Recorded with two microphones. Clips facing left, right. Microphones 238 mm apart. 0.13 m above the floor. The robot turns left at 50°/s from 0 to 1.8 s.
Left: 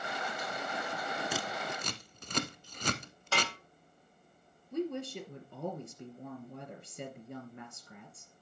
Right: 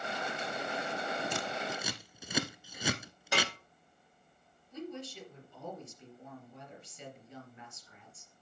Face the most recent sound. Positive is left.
turn(degrees=60)  # may be behind; listen again after turning